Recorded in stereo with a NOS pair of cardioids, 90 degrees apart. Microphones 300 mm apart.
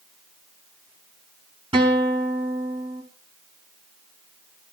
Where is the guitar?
15° right, 4 m.